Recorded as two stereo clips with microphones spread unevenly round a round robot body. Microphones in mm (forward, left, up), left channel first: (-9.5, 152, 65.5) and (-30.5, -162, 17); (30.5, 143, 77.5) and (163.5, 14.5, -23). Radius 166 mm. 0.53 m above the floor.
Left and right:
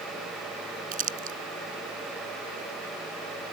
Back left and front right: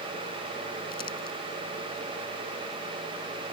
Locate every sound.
0.9 s crumpling: 160° right